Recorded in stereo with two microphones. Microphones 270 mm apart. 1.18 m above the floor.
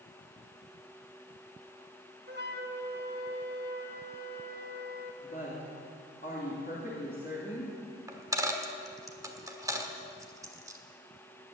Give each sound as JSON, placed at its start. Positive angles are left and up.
{"t": 2.3, "sound": "a flute", "side_deg": -40, "distance_m": 1.3}
{"t": 5.2, "sound": "a woman speaking", "side_deg": 35, "distance_m": 3.0}
{"t": 8.1, "sound": "a dropped coin", "side_deg": -10, "distance_m": 1.3}